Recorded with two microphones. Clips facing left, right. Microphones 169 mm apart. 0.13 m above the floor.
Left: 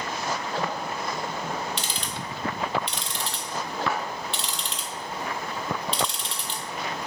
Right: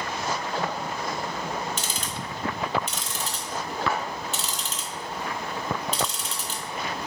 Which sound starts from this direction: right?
Ticking, at 1.8 s.